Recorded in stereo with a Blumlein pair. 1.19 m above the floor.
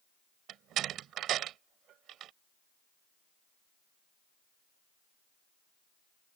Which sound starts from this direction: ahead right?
A door slam, at 0.5 s.